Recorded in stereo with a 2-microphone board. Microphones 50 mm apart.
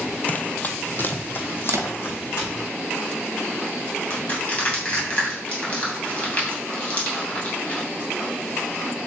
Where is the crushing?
25° left (ahead or behind), 3 m.